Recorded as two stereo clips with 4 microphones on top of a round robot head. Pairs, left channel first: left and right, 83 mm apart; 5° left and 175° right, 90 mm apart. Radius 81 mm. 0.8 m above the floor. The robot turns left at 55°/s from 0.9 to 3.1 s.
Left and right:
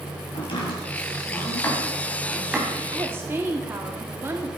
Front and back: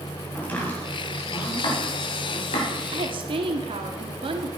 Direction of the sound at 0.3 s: 75° left.